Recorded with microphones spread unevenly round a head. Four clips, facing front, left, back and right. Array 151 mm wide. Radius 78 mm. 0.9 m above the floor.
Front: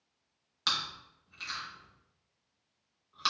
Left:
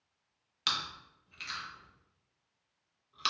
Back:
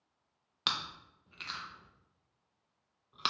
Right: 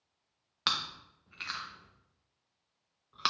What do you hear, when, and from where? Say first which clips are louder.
0.7 s chewing: right 2 dB, front 2 dB; 150° right, 0.6 m